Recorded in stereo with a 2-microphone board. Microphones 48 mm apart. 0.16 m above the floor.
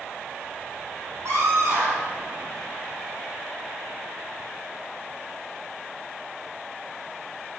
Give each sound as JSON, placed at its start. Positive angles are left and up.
{"t": 1.2, "sound": "a scream", "side_deg": -80, "distance_m": 8.5}